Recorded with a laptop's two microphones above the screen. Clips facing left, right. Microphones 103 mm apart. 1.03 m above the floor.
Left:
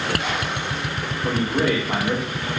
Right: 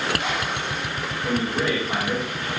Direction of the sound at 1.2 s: 55° left (ahead or behind).